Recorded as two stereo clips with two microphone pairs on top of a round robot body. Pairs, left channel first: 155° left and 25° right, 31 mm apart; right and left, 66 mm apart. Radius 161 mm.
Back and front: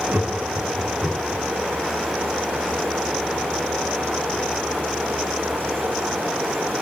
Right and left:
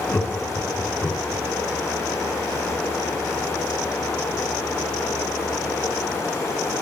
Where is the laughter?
25° right, 9.5 m.